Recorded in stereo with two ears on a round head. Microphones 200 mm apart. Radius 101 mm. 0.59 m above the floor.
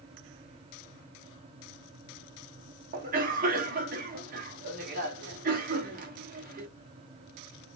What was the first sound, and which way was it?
A cough, 40° right (ahead or behind).